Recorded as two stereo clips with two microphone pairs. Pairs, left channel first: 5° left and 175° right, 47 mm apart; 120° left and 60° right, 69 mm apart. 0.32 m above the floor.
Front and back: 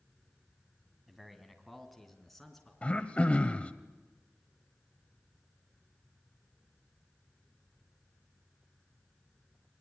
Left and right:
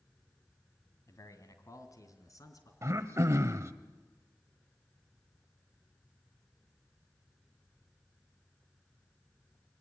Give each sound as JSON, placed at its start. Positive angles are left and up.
{"t": 1.1, "sound": "a man speaking", "azimuth_deg": 95, "distance_m": 2.0}
{"t": 2.8, "sound": "throat clearing", "azimuth_deg": -50, "distance_m": 1.1}